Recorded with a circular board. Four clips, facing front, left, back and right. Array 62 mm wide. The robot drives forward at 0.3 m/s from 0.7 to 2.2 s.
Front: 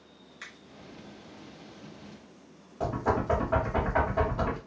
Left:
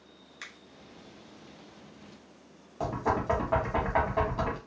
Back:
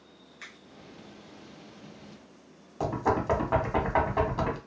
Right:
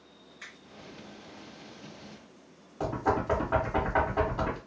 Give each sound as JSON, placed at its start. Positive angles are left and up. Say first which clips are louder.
{"t": 0.4, "sound": "a finger snap", "louder": "left 1 dB, front 1 dB", "azimuth_deg": 85, "distance_m": 1.1}
{"t": 2.8, "sound": "knocking", "louder": "right 1 dB, back 1 dB", "azimuth_deg": 170, "distance_m": 1.0}